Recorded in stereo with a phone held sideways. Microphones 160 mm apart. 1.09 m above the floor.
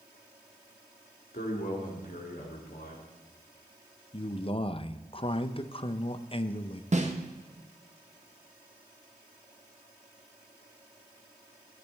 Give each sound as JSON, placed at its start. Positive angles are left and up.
{"t": 1.3, "sound": "a man speaking", "side_deg": 70, "distance_m": 2.5}
{"t": 4.1, "sound": "a man speaking", "side_deg": 35, "distance_m": 0.6}
{"t": 6.9, "sound": "a snare drum", "side_deg": -45, "distance_m": 1.0}